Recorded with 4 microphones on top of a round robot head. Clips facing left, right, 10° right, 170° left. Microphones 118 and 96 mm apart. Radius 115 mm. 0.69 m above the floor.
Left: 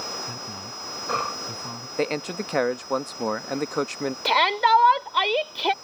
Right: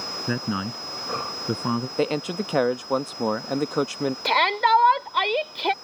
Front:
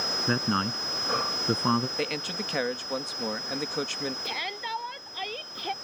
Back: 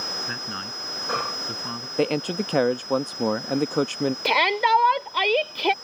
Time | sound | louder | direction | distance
0.3 | a man speaking | right 10 dB, front 7 dB | 65° right | ?
2.0 | a man speaking | left 2 dB, back 9 dB | 170° right | ?
4.2 | a shout | left 1 dB, back 15 dB | 175° left | ?